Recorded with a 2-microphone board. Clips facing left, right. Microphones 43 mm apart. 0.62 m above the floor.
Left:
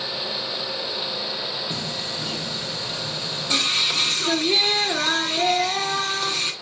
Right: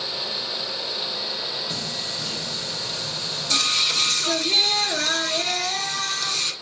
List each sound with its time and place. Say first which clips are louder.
1.7 s singing: left 1 dB; 20° left (ahead or behind), 0.5 m